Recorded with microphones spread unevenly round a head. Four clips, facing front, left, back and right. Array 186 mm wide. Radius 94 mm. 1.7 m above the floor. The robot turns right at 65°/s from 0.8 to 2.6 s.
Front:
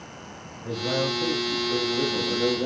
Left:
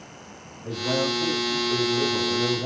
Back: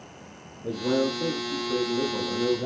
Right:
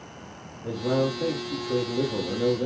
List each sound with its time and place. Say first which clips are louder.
0.6 s a man speaking: right 1 dB, back 2 dB; 155° right, 7 m; by 2.7 s 40° right, 7 m